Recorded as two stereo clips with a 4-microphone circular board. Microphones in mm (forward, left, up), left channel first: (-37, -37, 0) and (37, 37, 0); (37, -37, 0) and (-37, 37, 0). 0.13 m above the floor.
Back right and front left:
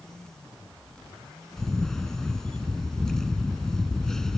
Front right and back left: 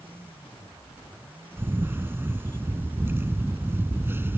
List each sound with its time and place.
1.6 s a camera shutter: 145° left